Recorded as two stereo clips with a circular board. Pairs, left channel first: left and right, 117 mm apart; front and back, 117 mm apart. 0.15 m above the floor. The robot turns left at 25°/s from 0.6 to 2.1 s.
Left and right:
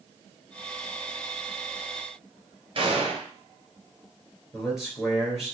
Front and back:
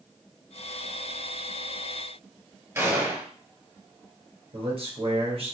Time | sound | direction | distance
2.8 | a gunshot | 120° right | 1.5 m
4.5 | a man speaking | 175° right | 2.5 m